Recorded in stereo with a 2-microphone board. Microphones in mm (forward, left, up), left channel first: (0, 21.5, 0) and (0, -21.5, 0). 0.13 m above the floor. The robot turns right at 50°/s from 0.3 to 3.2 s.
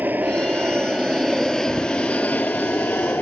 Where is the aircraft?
55° right; by 3.2 s 90° left.